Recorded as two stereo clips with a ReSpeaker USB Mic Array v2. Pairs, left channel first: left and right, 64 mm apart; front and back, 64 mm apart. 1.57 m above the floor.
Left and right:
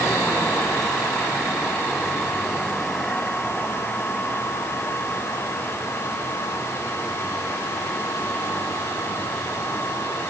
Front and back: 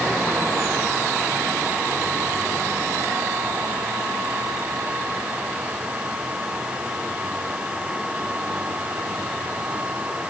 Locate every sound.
Only background noise.